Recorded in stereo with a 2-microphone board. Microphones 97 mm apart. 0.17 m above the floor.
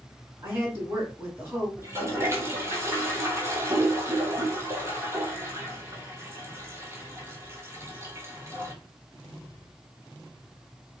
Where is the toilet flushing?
25° right (ahead or behind), 0.7 m.